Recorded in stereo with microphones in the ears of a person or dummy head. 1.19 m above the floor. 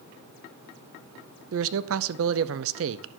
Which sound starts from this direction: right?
A man speaking, at 1.5 s.